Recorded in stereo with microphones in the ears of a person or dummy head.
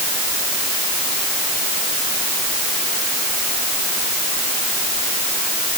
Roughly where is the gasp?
I don't hear a gasp.